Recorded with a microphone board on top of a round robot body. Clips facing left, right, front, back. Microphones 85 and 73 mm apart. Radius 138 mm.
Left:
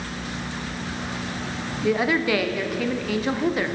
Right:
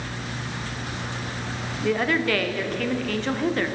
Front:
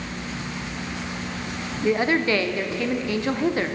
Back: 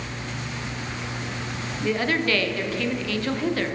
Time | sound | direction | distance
1.8 | a woman speaking | 20° left | 0.8 m